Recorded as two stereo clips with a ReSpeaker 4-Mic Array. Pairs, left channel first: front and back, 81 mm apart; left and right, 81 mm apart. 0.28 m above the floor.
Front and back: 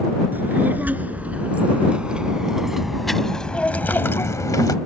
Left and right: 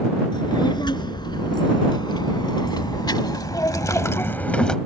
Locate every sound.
0.3 s a child speaking: 115° left; by 4.8 s 10° left